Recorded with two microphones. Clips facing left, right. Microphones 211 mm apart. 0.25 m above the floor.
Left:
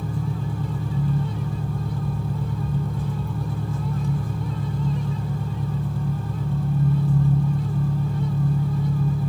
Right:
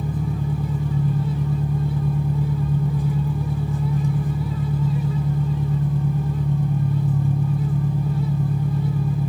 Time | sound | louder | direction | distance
0.0 | an engine running | right 3 dB | 15° right (ahead or behind) | 1.0 m